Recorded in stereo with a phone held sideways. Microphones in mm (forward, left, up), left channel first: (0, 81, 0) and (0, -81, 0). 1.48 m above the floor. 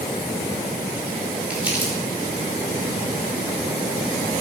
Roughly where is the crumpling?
Centre.